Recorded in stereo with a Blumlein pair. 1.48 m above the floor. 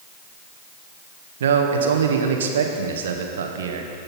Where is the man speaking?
60° right, 1.7 m.